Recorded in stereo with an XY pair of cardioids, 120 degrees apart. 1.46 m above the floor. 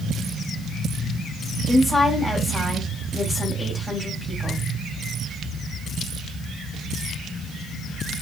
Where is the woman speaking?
20° left, 1.3 m.